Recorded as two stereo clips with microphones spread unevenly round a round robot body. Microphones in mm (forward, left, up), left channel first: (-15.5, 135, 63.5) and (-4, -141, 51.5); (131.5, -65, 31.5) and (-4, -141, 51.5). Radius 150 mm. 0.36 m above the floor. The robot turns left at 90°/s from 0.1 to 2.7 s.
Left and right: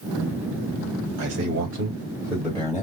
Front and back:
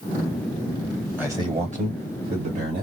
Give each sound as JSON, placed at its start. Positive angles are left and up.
{"t": 1.2, "sound": "a man speaking", "azimuth_deg": -70, "distance_m": 1.9}